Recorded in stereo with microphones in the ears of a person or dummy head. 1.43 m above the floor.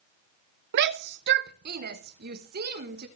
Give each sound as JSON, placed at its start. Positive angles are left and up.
{"t": 0.7, "sound": "a shout", "side_deg": -60, "distance_m": 0.5}